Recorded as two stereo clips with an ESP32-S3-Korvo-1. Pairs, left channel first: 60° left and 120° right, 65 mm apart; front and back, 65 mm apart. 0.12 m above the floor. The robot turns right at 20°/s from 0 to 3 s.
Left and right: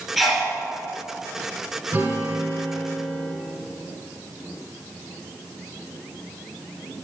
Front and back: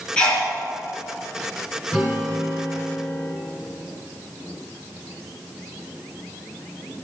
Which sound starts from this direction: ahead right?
A sneeze, at 0.2 s.